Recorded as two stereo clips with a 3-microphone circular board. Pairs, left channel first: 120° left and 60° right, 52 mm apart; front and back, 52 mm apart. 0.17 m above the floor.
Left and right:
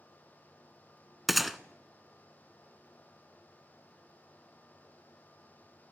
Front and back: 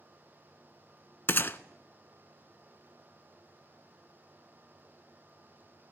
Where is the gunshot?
25° left, 0.5 m.